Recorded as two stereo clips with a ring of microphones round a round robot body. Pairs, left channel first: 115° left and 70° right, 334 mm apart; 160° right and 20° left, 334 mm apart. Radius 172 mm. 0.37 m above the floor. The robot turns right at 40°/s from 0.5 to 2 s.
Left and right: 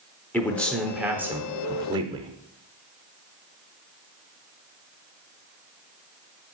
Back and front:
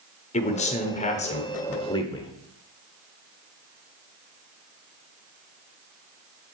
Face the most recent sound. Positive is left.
turn(degrees=-110)